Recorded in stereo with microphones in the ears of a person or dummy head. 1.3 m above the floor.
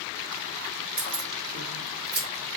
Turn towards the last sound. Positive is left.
turn(degrees=-50)  # may be behind; listen again after turning